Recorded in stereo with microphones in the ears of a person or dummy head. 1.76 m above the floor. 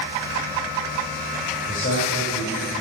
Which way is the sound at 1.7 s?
40° left (ahead or behind).